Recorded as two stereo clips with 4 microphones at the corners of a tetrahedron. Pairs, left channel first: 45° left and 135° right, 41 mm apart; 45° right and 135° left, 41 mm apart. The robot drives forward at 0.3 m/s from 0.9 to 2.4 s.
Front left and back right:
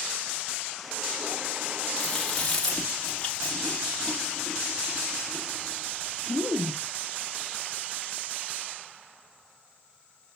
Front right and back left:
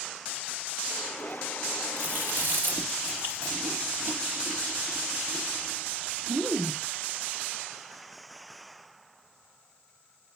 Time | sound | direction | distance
2.0 | chewing | 120° left | 3 m